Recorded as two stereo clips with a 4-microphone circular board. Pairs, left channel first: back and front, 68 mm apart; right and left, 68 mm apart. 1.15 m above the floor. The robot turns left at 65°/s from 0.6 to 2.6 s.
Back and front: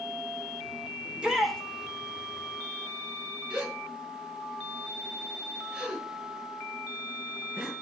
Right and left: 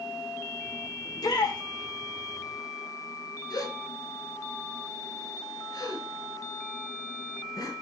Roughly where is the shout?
Ahead right.